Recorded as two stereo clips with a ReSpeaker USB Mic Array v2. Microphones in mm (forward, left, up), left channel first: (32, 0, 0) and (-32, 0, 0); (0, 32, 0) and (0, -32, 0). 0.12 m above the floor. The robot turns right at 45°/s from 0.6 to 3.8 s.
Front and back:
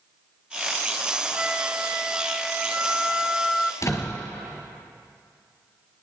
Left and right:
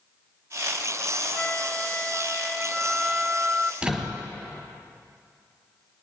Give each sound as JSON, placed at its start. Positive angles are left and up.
{"t": 1.3, "sound": "a flute", "azimuth_deg": 130, "distance_m": 0.7}
{"t": 3.8, "sound": "a door slam", "azimuth_deg": -20, "distance_m": 1.3}